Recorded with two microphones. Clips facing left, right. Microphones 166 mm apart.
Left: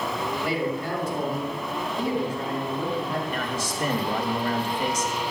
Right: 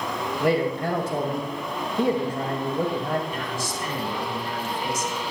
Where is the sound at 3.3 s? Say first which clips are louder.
Left 1 dB; 65° left (ahead or behind), 2.5 m.